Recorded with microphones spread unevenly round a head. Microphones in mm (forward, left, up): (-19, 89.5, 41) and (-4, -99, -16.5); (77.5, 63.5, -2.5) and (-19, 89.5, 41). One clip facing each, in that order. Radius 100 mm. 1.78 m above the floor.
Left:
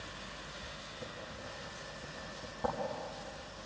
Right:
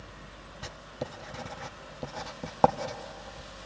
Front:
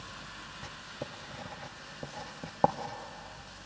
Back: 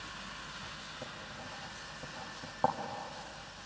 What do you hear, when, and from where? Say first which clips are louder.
0.6 s writing: right 12 dB, front 4 dB; 70° right, 0.9 m